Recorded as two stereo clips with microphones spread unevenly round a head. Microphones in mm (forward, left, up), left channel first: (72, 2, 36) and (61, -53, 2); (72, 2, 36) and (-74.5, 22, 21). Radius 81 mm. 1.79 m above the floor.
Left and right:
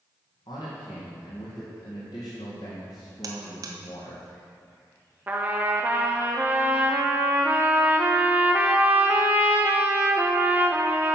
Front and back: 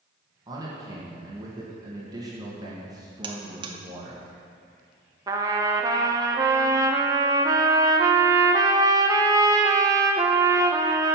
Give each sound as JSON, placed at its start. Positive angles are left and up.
{"t": 0.5, "sound": "a man speaking", "azimuth_deg": 105, "distance_m": 2.5}
{"t": 3.2, "sound": "a buzzer", "azimuth_deg": -125, "distance_m": 1.1}
{"t": 5.3, "sound": "a trumpet", "azimuth_deg": 130, "distance_m": 0.8}